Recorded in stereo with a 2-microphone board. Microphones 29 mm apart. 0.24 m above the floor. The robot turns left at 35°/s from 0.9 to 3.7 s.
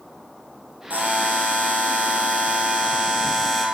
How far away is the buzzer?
About 3 m.